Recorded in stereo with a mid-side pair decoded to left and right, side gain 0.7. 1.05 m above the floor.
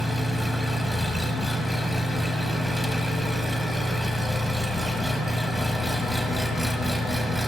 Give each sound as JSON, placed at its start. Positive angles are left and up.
{"t": 0.0, "sound": "an engine running", "azimuth_deg": 0, "distance_m": 0.8}